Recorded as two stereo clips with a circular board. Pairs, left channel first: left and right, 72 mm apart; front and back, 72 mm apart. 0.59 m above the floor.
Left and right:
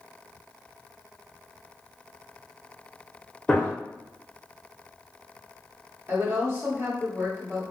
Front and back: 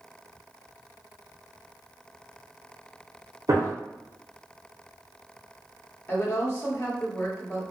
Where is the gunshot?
160° left, 0.9 m.